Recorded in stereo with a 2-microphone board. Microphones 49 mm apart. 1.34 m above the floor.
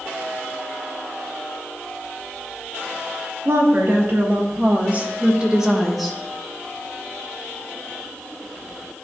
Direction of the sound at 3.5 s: 55° right (ahead or behind).